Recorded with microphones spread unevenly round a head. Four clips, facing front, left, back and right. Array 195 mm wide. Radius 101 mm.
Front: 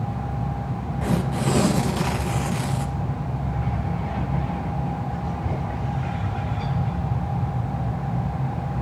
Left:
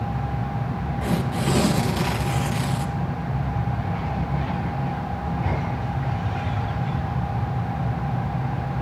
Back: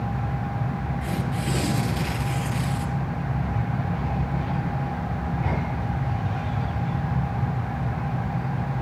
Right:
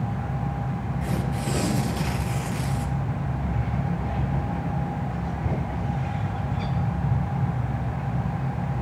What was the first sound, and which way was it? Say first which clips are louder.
Tearing paper: left 6 dB, front 8 dB; 40° left.